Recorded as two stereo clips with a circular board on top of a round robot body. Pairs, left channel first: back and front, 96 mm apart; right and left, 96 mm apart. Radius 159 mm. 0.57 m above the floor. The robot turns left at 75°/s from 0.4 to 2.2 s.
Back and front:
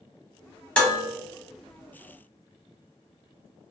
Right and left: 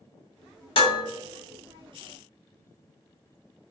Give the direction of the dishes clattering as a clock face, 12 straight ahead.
3 o'clock.